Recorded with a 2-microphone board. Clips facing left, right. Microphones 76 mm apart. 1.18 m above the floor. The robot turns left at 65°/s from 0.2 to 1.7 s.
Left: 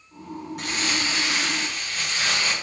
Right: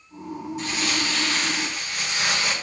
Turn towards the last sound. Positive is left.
turn(degrees=-15)